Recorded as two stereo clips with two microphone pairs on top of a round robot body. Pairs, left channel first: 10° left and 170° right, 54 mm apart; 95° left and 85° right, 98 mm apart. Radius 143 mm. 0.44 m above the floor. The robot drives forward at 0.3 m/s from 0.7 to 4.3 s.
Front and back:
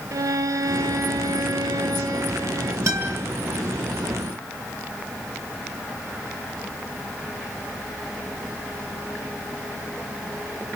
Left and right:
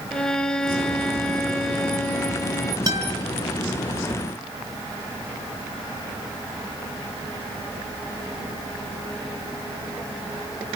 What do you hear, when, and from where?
0.1 s a violin: straight behind, 0.8 m
2.9 s a guitar: 135° right, 4 m